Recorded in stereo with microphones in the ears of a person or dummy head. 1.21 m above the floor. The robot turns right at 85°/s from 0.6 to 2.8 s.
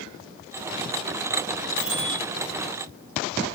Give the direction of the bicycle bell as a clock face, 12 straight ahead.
8 o'clock.